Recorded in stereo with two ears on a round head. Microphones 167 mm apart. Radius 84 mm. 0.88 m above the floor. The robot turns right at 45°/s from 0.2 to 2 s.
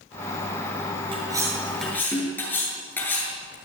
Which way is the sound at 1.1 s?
30° right (ahead or behind).